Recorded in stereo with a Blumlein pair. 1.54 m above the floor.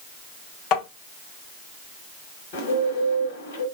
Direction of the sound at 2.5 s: 50° left.